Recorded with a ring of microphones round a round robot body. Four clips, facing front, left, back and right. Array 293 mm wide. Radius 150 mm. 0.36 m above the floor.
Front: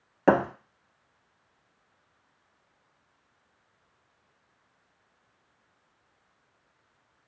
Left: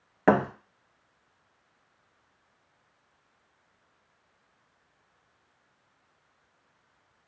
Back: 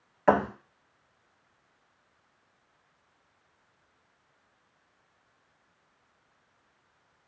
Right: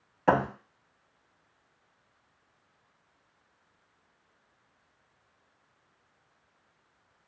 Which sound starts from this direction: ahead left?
A thud, at 0.3 s.